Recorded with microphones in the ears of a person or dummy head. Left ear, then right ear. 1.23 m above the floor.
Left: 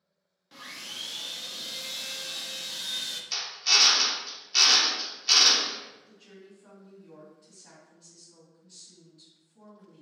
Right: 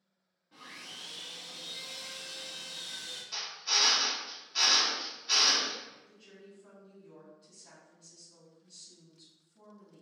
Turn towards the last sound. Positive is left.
turn(degrees=20)  # may be behind; listen again after turning